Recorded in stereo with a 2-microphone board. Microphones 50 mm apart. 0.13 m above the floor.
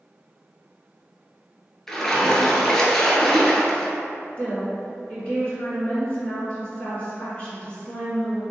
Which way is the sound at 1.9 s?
10° left (ahead or behind).